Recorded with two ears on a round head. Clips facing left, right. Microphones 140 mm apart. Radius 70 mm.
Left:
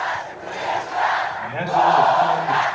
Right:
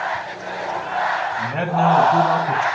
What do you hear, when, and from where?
1.4 s a man speaking: 45° right (ahead or behind), 3.5 m; by 2.7 s 65° right (ahead or behind), 3.5 m